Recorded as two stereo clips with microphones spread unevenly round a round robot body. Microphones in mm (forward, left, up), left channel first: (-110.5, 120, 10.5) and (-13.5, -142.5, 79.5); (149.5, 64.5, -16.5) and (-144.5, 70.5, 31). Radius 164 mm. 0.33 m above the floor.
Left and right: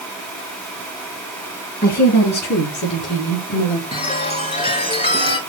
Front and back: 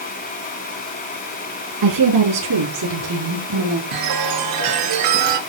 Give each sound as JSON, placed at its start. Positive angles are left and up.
{"t": 1.8, "sound": "a woman speaking", "azimuth_deg": 165, "distance_m": 6.0}
{"t": 3.9, "sound": "a chime", "azimuth_deg": 175, "distance_m": 4.0}